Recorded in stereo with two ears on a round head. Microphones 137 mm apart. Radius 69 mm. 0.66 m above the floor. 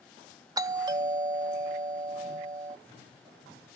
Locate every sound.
0.6 s a doorbell: 25° right (ahead or behind)